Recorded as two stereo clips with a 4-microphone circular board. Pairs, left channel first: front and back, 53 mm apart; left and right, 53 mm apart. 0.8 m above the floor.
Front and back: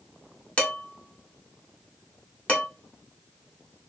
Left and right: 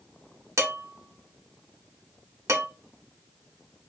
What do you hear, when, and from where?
0.6 s dishes clattering: 65° right, 1.1 m